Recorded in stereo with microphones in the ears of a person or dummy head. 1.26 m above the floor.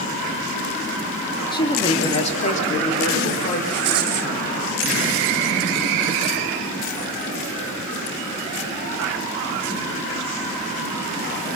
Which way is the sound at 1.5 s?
25° left (ahead or behind).